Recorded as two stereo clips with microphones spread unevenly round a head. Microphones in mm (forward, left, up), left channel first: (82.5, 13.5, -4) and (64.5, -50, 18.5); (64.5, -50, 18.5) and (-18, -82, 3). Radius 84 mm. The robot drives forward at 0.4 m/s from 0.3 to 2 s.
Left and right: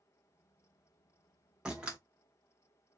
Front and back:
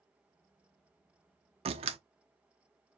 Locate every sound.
1.6 s a door slam: 175° right, 0.7 m